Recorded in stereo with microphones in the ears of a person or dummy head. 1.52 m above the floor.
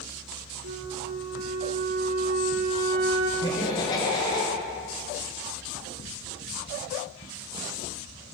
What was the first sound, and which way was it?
A flute, 40° right (ahead or behind).